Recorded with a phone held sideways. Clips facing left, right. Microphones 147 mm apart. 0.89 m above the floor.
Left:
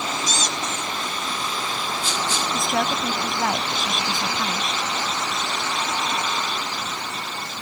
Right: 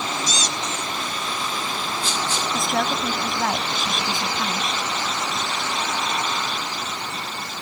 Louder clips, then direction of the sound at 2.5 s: Right 1 dB; centre (ahead or behind).